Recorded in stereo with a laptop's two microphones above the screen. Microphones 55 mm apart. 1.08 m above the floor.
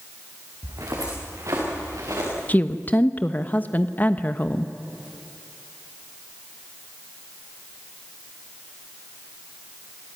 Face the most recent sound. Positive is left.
turn(degrees=30)  # may be behind; listen again after turning